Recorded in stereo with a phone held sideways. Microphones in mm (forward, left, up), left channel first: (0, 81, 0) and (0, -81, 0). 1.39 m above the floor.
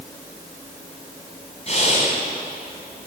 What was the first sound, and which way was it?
Breathing, 40° left (ahead or behind).